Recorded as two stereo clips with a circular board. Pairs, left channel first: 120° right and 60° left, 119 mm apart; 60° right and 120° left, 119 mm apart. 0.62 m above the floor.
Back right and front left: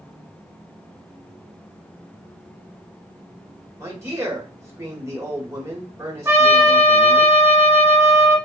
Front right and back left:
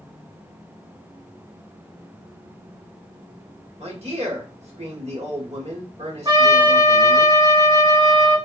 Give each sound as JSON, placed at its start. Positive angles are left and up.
{"t": 3.8, "sound": "a man speaking", "azimuth_deg": 125, "distance_m": 1.1}
{"t": 6.2, "sound": "a trumpet", "azimuth_deg": 115, "distance_m": 0.7}